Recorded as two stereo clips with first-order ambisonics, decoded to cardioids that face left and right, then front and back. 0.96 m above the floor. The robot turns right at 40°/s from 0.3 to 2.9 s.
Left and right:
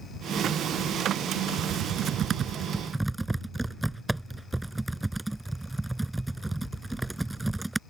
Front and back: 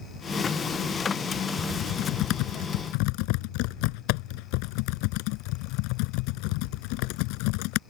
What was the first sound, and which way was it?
Typing on a keyboard, 60° right.